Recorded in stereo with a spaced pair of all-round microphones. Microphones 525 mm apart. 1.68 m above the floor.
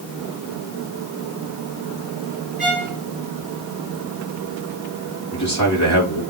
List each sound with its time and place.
2.6 s a violin: 45° left (ahead or behind), 3.5 m
5.3 s a man speaking: 30° left (ahead or behind), 3 m